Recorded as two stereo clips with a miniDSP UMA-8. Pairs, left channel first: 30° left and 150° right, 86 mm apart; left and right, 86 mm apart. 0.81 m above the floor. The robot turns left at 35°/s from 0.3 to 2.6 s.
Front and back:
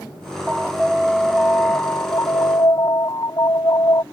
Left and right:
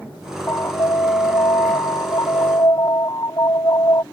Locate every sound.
0.5 s an alarm: 135° left; by 4.0 s 60° left